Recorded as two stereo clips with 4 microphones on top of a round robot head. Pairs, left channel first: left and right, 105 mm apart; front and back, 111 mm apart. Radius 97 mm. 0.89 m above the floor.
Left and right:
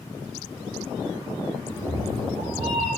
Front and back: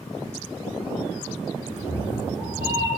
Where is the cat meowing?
100° left, 6 m; by 2.9 s 105° left, 5.5 m.